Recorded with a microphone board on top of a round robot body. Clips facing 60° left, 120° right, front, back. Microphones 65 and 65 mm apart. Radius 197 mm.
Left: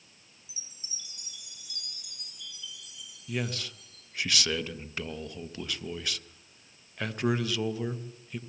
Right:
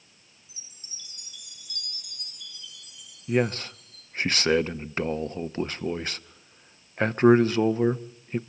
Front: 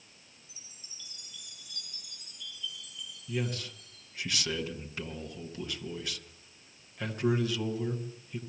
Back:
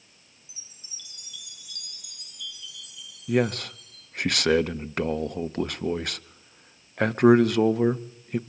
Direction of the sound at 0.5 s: 160° right.